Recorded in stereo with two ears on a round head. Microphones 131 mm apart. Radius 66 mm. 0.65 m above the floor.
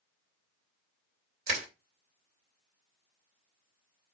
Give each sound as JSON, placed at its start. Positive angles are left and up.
{"t": 1.5, "sound": "crushing", "side_deg": -70, "distance_m": 3.0}